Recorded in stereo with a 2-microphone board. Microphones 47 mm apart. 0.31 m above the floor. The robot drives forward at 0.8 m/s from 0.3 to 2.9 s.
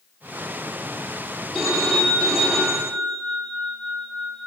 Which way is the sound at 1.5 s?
5° right (ahead or behind).